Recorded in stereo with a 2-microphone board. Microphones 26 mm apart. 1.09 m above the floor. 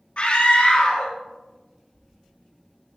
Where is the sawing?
No sawing in this recording.